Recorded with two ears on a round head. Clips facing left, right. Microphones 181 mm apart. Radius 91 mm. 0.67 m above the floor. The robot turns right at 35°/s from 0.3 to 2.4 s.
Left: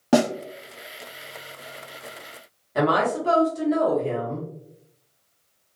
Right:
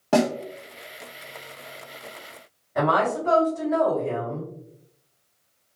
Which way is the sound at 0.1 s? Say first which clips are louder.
Left 1 dB; 15° left (ahead or behind).